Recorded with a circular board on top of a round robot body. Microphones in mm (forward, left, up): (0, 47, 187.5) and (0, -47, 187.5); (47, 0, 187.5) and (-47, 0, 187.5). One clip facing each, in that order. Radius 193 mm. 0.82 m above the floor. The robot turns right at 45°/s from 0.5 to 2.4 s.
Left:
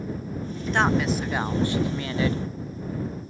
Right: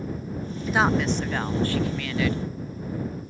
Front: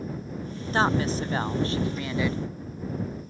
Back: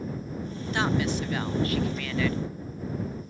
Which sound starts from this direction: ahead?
A woman speaking, at 0.7 s.